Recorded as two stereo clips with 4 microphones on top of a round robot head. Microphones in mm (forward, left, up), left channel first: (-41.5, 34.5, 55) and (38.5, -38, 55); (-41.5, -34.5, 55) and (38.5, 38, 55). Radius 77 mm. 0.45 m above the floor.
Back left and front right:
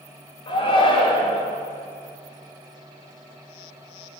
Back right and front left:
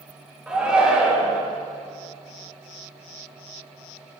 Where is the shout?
120° left, 1.9 m.